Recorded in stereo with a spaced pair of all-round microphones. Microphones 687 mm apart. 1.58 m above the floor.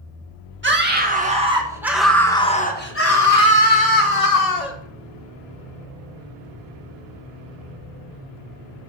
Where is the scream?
15° right (ahead or behind), 1.9 m; by 4.8 s 65° left (ahead or behind), 1.2 m.